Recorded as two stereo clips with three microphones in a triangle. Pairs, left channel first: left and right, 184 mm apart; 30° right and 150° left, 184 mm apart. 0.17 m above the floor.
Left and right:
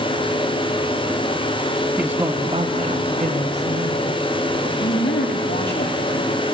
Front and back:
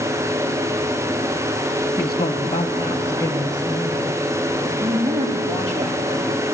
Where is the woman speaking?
10° right, 1.2 m; by 4.7 s 95° right, 3.5 m.